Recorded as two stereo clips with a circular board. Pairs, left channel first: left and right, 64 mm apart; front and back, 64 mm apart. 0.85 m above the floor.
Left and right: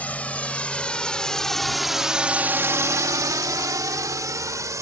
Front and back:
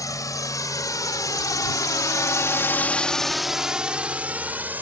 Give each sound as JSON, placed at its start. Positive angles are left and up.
{"t": 0.0, "sound": "a drone", "azimuth_deg": 25}